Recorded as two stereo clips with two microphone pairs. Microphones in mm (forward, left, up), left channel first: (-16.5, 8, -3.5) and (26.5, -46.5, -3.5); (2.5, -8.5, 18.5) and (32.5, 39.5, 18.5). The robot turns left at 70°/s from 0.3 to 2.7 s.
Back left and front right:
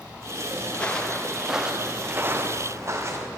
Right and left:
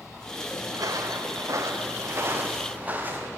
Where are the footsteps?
60° left, 1.8 m; by 3.3 s 5° left, 2.5 m.